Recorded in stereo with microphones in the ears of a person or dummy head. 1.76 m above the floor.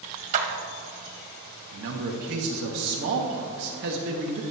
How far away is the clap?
About 1.3 m.